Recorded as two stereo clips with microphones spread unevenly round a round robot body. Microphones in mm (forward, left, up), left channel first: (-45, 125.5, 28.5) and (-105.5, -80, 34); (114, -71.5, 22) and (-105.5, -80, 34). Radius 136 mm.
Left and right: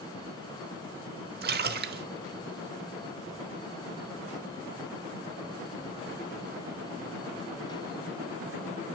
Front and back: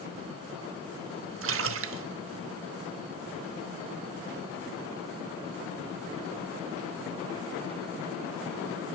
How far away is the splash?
About 0.8 m.